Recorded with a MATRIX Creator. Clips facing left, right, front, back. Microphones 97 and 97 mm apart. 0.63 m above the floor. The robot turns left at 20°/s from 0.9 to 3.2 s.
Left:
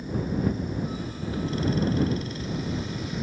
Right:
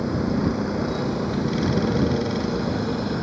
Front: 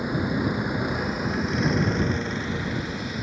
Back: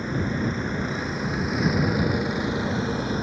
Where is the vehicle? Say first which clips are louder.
Right 5 dB, front 1 dB; 75° right; by 3.2 s 125° right.